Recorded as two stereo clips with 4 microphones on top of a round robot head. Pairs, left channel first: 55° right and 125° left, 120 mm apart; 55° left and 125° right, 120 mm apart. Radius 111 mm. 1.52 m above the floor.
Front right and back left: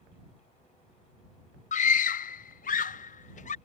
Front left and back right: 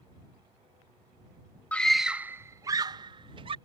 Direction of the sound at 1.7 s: 25° right.